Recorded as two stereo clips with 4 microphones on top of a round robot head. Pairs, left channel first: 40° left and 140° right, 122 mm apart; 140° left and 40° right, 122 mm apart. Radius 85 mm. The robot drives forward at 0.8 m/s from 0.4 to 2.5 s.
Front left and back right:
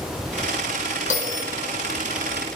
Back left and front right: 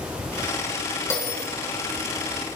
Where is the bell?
70° left, 4.5 m.